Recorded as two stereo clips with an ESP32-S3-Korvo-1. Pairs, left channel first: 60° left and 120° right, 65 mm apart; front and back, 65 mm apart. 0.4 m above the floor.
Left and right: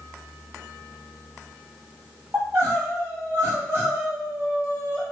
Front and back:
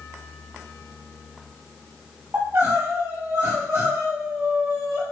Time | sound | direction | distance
2.3 | crying | 155° right | 2.0 m